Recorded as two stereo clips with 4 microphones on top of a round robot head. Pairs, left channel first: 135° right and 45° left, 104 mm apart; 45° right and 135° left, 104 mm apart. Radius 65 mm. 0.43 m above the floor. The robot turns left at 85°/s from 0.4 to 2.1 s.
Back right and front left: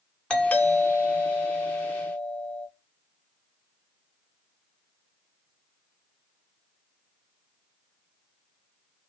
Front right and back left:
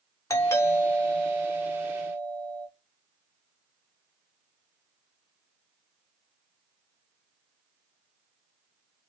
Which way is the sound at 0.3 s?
65° right.